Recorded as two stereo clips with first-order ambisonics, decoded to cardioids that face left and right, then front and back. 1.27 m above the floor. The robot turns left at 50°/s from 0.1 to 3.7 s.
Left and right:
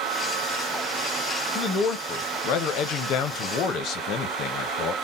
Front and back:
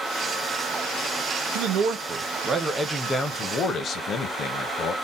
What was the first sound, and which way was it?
A man speaking, 160° left.